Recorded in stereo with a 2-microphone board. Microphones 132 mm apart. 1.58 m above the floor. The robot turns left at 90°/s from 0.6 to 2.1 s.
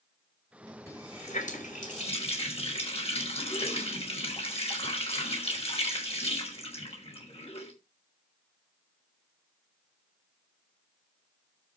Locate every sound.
0.9 s a running tap: 160° left, 5 m; by 7.7 s 50° left, 5 m